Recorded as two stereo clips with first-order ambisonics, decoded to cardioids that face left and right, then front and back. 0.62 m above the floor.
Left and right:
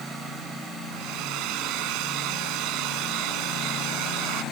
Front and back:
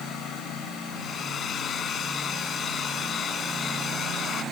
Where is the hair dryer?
65° right.